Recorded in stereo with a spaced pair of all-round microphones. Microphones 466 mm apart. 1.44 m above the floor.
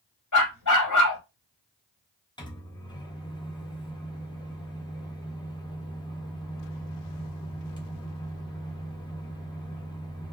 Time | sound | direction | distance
0.3 | a dog barking | 40° left (ahead or behind) | 1.3 m
2.4 | a microwave | 10° left (ahead or behind) | 0.7 m